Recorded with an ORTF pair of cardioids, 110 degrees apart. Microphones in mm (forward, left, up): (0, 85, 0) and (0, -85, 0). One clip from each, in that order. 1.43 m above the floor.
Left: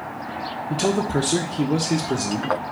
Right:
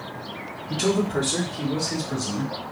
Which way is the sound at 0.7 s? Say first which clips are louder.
Left 1 dB; 20° left.